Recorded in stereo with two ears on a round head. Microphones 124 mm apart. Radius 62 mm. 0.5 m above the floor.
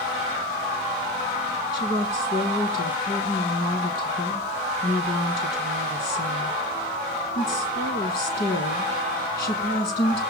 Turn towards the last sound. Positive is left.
turn(degrees=75)  # may be behind; listen again after turning